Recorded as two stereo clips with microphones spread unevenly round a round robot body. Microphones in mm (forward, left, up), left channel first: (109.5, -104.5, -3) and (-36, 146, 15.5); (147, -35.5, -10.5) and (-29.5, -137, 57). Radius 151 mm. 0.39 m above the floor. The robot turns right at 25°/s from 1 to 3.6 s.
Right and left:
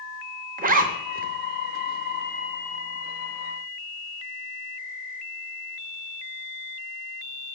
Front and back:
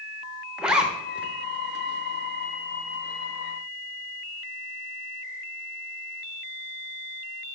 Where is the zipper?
90° left, 0.7 m; by 1.3 s 95° left, 0.7 m.